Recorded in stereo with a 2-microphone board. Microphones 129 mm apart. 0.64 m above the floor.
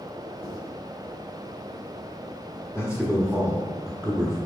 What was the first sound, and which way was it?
Writing, 45° right (ahead or behind).